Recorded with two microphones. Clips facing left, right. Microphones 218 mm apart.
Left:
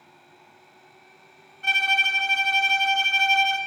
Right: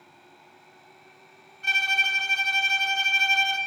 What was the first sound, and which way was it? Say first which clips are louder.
A violin: left 5 dB; 50° left (ahead or behind).